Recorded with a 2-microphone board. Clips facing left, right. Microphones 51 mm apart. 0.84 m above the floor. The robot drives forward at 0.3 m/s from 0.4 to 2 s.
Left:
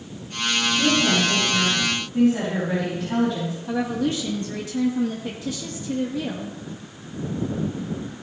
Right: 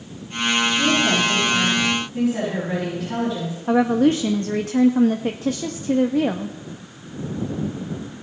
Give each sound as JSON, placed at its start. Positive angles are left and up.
{"t": 0.7, "sound": "a woman speaking", "side_deg": 0, "distance_m": 6.0}
{"t": 3.7, "sound": "a woman speaking", "side_deg": -45, "distance_m": 0.6}